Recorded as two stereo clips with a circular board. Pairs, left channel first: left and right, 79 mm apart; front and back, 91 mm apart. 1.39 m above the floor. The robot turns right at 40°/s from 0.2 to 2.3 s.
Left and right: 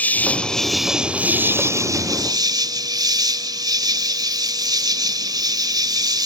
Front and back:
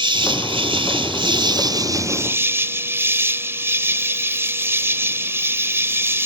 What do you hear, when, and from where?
0.0 s an insect: 160° left; by 6.3 s 120° right